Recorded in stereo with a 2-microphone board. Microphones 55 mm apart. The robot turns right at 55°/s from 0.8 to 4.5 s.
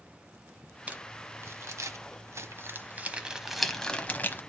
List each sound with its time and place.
0.9 s crumpling: 25° right (ahead or behind), 1.0 m; by 4.4 s 35° left (ahead or behind), 1.0 m